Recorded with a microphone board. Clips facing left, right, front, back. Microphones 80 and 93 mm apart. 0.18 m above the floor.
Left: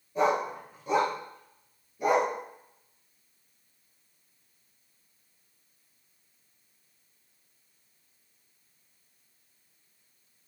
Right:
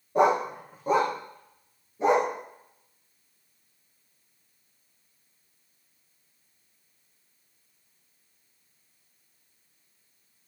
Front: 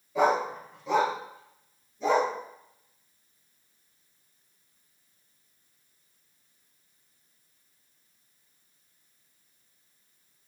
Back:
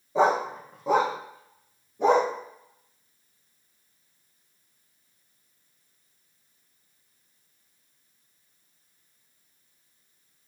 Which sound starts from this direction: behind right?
A dog barking, at 0.1 s.